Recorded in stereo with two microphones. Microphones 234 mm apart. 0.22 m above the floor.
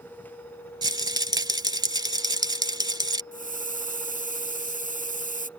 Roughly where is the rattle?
Centre.